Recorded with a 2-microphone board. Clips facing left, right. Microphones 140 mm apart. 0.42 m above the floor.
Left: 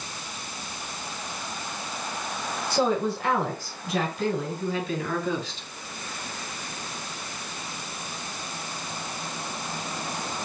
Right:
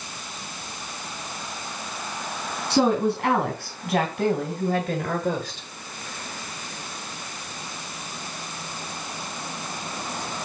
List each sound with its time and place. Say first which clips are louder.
2.7 s a woman speaking: right 4 dB; 75° right (ahead or behind), 3.5 m; by 5.7 s 55° right (ahead or behind), 1.8 m